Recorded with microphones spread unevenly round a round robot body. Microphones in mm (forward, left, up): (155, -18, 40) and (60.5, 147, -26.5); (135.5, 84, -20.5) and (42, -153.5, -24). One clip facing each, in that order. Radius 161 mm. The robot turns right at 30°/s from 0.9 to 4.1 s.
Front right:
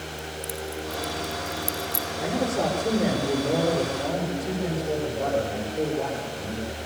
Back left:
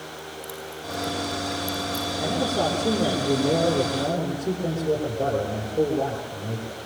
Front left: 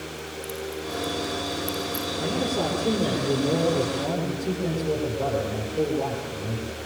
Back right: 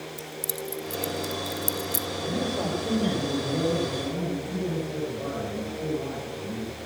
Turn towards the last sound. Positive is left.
turn(degrees=100)